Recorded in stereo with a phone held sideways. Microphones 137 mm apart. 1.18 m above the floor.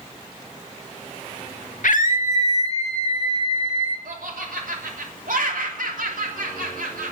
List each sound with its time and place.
1.8 s a scream: 70° left (ahead or behind), 0.6 m; by 4.0 s 40° left (ahead or behind), 2 m
4.0 s laughter: 80° right, 3 m